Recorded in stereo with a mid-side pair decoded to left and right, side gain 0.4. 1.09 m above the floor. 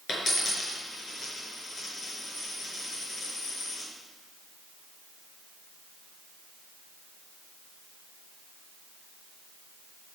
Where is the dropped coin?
50° left, 5 m.